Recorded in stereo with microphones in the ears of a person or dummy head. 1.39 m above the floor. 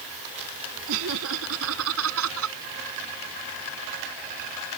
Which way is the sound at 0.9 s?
80° right.